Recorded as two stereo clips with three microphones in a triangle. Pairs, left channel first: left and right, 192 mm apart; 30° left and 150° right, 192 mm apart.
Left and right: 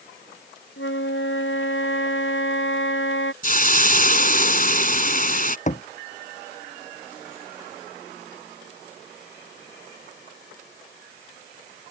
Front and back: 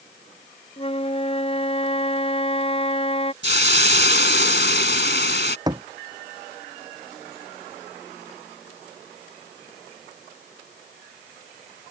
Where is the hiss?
50° left.